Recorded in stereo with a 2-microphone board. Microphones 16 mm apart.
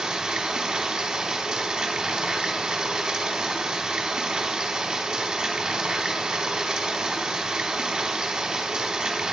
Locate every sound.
0.0 s running water: 55° right (ahead or behind), 0.9 m